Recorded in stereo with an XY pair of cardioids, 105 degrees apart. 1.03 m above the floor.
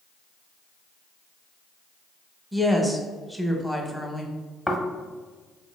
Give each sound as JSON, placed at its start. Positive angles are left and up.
{"t": 2.5, "sound": "a woman speaking", "azimuth_deg": 0, "distance_m": 0.7}
{"t": 4.7, "sound": "snoring", "azimuth_deg": 5, "distance_m": 0.7}